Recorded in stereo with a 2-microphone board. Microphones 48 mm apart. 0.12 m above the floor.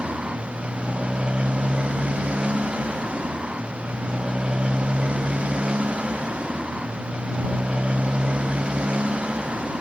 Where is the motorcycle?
20° right (ahead or behind).